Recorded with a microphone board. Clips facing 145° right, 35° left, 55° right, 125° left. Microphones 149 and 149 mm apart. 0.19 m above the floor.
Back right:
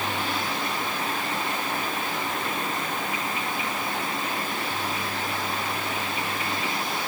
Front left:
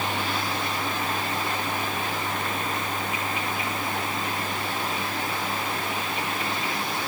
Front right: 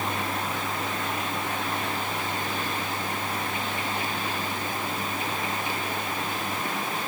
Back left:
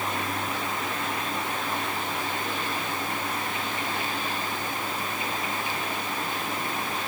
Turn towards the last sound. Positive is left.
No sound to turn to.